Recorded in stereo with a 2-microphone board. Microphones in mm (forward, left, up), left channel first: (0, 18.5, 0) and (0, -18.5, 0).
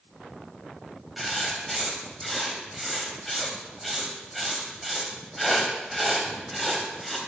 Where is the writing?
Centre (ahead or behind), 1.5 m.